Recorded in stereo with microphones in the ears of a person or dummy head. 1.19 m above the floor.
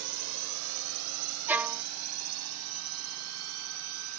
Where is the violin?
10° right (ahead or behind).